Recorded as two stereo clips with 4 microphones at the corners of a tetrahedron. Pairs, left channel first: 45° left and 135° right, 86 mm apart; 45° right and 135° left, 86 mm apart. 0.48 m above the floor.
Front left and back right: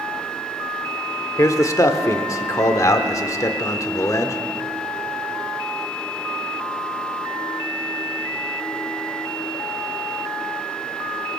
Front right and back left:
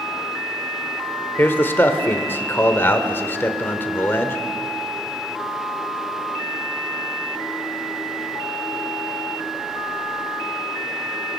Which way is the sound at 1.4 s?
10° left.